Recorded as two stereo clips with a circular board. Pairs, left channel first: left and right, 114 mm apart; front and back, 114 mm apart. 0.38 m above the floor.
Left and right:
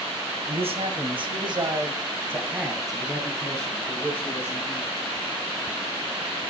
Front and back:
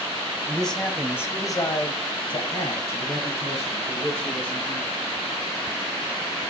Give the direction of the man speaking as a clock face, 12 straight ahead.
3 o'clock.